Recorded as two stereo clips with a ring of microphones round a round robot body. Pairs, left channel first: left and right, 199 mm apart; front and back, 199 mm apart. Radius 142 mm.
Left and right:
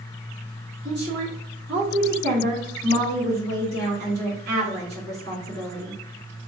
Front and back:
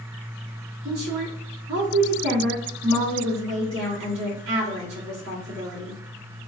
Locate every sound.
0.8 s a woman speaking: 145° right, 1.7 m